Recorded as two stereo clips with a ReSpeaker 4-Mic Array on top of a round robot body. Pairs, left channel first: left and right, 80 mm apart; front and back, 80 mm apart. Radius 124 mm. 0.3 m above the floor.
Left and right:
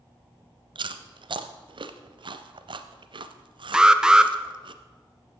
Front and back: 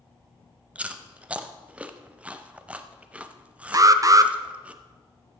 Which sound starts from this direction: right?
Chewing, at 0.8 s.